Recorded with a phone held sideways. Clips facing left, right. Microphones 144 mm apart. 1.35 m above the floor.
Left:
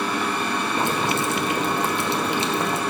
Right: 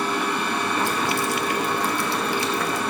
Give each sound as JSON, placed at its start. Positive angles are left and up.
{"t": 0.8, "sound": "boiling", "side_deg": 20, "distance_m": 1.2}